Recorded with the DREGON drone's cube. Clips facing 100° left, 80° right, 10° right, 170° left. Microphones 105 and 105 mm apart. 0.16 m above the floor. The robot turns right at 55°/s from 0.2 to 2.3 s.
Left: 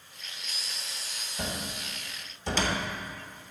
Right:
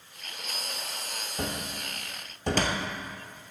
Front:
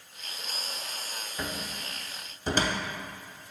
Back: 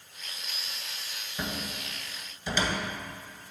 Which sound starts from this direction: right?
A cupboard door, at 1.4 s.